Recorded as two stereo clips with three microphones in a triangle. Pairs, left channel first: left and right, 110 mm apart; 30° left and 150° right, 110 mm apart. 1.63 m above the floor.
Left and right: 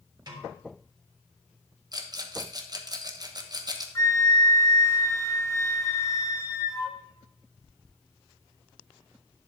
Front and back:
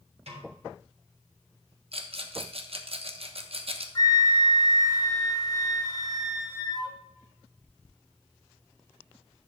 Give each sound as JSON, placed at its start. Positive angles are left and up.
{"t": 0.3, "sound": "a snare drum", "azimuth_deg": -135, "distance_m": 3.5}
{"t": 1.9, "sound": "a rattle", "azimuth_deg": -135, "distance_m": 1.2}
{"t": 4.0, "sound": "a flute", "azimuth_deg": 55, "distance_m": 1.1}